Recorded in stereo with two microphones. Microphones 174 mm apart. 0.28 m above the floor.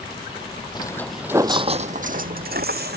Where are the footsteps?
25° left (ahead or behind); by 3.0 s 70° right (ahead or behind).